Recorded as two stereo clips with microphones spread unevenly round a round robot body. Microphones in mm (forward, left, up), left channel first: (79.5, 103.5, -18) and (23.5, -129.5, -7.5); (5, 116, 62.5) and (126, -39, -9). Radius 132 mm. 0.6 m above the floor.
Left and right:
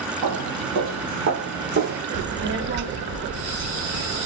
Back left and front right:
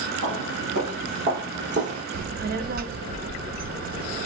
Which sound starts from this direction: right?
Footsteps, at 0.2 s.